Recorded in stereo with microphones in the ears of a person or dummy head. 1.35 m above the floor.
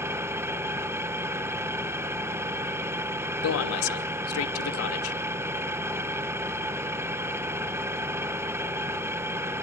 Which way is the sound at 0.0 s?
15° right (ahead or behind).